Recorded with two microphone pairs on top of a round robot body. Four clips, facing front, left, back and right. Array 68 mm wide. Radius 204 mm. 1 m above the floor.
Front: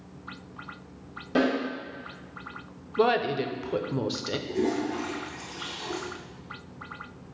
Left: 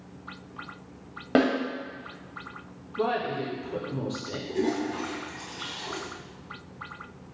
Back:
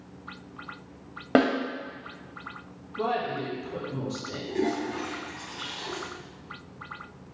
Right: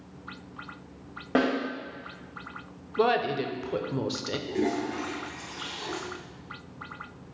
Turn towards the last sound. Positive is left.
turn(degrees=-120)